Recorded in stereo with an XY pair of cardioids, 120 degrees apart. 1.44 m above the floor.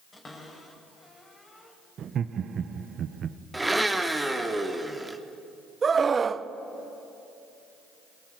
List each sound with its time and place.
0.1 s a cupboard door: 25° left, 5 m
2.0 s laughter: 45° right, 0.9 m
3.5 s a blender: 10° right, 2 m
5.8 s a scream: 30° right, 1.0 m